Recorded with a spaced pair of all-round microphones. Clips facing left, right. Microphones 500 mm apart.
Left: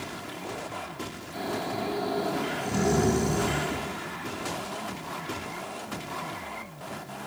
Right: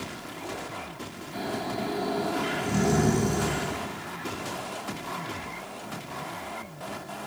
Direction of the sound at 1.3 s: 25° right (ahead or behind).